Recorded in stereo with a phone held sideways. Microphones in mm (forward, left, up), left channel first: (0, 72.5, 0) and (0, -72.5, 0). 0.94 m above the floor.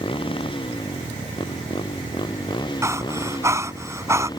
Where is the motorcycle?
35° left (ahead or behind); by 4.4 s 30° left (ahead or behind).